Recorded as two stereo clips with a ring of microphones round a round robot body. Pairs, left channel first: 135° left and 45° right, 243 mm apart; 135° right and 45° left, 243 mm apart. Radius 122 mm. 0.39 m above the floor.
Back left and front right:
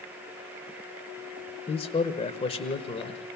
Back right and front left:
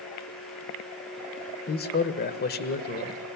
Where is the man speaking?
165° right, 1.3 m.